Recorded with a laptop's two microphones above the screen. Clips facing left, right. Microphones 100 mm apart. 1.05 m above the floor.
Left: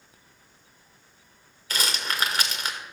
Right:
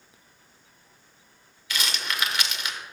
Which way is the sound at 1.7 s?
40° left (ahead or behind).